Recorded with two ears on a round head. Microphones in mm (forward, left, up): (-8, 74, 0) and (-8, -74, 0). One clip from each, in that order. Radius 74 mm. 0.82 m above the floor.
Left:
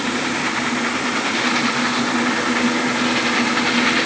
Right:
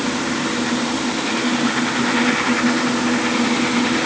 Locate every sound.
Only background noise.